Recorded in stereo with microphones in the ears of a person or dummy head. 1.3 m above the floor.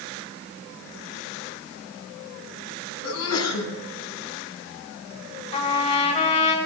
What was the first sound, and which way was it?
A sneeze, 90° left.